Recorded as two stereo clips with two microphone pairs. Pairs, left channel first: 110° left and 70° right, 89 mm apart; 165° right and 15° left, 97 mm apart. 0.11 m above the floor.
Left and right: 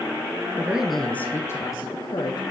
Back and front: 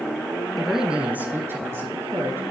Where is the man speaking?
75° right, 1.2 m; by 2.4 s 75° left, 2.5 m.